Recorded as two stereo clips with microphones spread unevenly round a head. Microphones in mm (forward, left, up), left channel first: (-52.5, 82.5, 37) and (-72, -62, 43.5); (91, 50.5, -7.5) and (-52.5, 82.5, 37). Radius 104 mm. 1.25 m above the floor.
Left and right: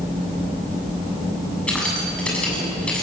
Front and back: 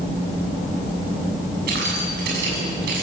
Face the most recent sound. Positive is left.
turn(degrees=165)